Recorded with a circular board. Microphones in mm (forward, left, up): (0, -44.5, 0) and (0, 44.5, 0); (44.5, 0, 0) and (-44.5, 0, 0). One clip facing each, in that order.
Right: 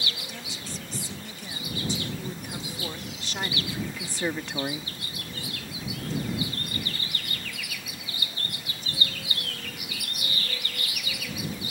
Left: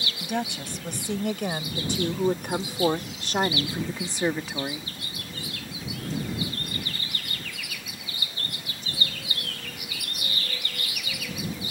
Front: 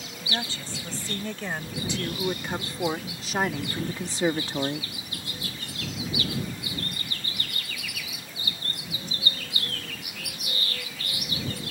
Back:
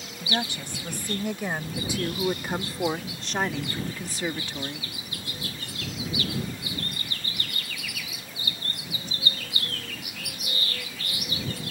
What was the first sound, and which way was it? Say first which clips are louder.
A woman speaking: left 10 dB, back 3 dB; 110° left.